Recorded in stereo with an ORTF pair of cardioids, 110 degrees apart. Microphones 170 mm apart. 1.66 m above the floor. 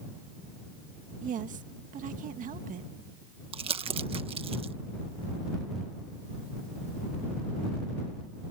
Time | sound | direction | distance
1.2 | a woman speaking | 55° right | ?
3.5 | crumpling | 35° right | ?